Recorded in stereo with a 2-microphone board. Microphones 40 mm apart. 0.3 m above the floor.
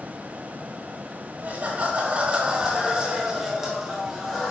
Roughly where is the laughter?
Right.